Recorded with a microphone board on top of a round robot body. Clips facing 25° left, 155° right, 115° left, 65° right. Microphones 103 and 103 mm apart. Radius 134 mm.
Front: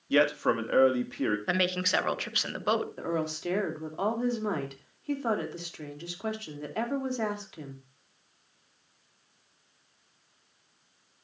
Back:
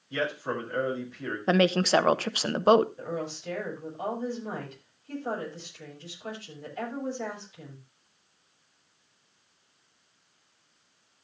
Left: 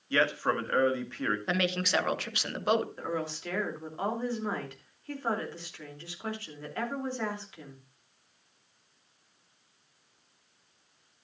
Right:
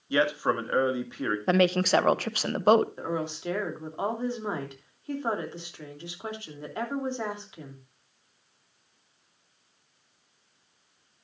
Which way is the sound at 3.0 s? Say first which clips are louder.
Front 3 dB, right 3 dB; 5° left.